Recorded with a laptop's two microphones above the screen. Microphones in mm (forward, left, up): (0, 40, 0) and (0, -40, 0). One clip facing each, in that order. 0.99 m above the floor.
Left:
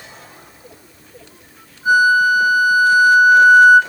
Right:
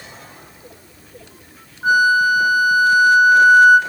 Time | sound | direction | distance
1.8 | a flute | 55° right (ahead or behind) | 5 m